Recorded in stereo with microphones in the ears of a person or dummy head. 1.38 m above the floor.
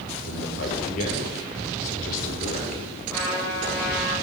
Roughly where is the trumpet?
Centre.